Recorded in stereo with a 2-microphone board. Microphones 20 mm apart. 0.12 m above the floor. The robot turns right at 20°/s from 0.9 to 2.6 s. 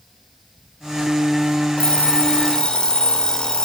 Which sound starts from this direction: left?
An alarm clock, at 1.8 s.